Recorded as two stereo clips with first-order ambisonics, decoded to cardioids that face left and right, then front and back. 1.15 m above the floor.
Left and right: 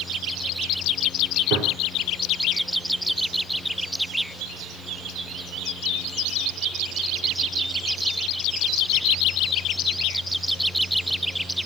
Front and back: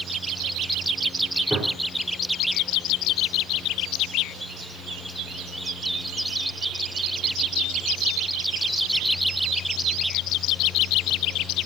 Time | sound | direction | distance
1.5 | a gunshot | 95° right | 5 m